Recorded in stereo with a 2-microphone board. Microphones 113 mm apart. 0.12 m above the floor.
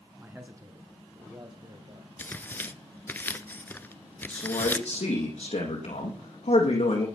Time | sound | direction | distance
0.2 | a man speaking | 15° right (ahead or behind) | 1.5 m
2.2 | tearing paper | 20° left (ahead or behind) | 0.6 m
4.3 | a man speaking | 75° left (ahead or behind) | 5 m